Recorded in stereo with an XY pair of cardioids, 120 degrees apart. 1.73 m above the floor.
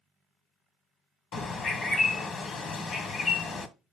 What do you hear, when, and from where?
1.3 s a bird: 40° left, 1.0 m